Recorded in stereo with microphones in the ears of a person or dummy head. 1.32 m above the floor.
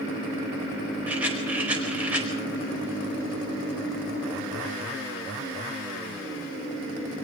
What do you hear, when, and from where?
1.1 s a rattle: 5° right (ahead or behind), 4.5 m